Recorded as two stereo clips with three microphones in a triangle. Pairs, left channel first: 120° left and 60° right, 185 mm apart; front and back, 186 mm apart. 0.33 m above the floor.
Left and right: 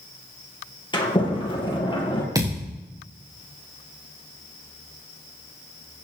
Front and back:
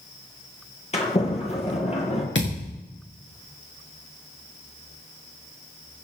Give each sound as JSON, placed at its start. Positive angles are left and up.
{"t": 0.9, "sound": "a sliding door", "azimuth_deg": 55, "distance_m": 3.5}
{"t": 2.4, "sound": "a thud", "azimuth_deg": 10, "distance_m": 4.5}